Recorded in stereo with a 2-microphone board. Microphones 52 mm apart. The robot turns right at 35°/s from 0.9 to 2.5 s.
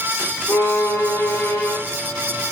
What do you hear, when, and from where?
0.5 s a violin: 110° left, 1.7 m; by 1.8 s 145° left, 1.7 m